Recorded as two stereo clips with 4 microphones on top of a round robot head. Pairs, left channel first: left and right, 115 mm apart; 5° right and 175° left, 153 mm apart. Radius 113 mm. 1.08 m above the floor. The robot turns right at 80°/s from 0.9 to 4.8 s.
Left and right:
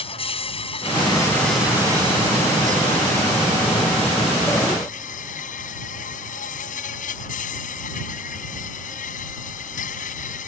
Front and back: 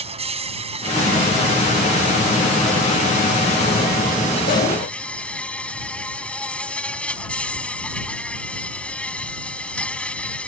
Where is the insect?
125° left; by 10.5 s 80° left.